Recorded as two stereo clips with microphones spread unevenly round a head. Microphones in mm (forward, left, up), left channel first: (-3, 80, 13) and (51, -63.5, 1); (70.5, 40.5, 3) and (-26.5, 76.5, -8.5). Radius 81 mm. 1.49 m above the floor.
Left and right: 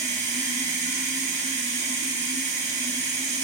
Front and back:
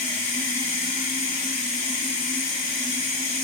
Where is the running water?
55° right, 1.0 m.